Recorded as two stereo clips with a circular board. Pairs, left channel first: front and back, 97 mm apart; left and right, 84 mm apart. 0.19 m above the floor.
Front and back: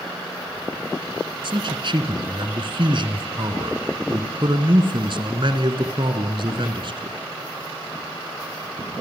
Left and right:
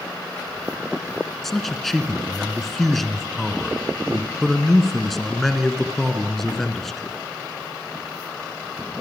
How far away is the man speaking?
About 3 m.